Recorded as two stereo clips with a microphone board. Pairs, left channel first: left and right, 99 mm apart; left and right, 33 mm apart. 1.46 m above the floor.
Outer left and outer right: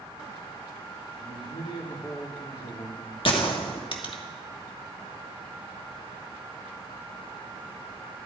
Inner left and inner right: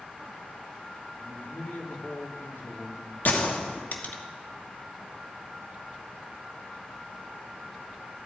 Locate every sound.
1.2 s a man speaking: 70° left (ahead or behind), 3.5 m
3.2 s a gunshot: 60° left (ahead or behind), 1.6 m